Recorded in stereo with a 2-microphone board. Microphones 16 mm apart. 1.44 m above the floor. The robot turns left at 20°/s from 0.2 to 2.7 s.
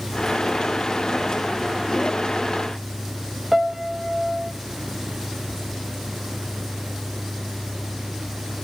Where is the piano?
20° right (ahead or behind), 0.9 m.